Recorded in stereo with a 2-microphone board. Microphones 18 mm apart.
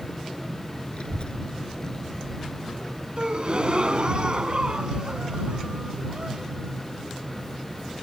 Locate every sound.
0.9 s a child speaking: 65° left (ahead or behind); by 4.2 s 15° right (ahead or behind)
3.2 s a gasp: 55° right (ahead or behind)